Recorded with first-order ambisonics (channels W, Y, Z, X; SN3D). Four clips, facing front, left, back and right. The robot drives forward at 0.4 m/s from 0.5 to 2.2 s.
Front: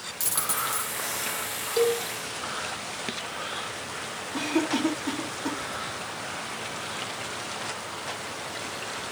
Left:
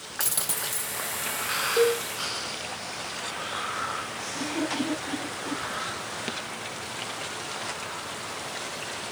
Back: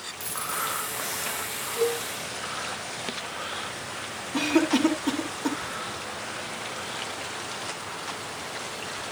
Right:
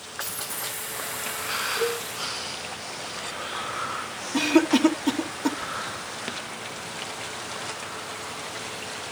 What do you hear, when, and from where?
0.2 s a dropped coin: 55° left, 4.5 m; by 0.9 s 60° left, 4.5 m
1.8 s a cowbell: 45° left, 4 m
4.3 s a cough: 110° right, 3 m